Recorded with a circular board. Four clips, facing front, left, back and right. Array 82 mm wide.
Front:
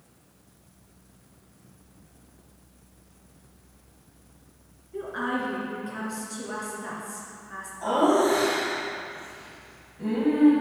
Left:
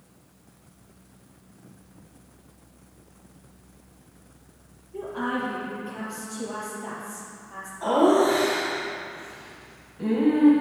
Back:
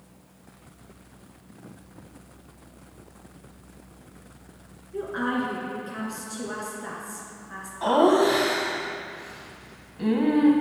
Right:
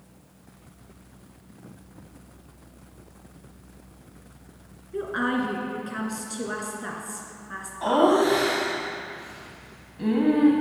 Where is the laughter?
155° right, 1.3 m.